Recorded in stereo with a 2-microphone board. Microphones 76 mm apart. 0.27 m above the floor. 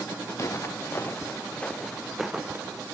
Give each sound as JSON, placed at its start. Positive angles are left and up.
{"t": 0.3, "sound": "footsteps", "side_deg": 40, "distance_m": 2.0}